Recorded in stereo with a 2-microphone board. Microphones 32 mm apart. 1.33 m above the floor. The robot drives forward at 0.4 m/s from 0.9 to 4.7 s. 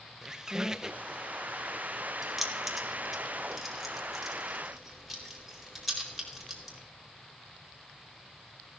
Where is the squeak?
25° right (ahead or behind), 0.7 m.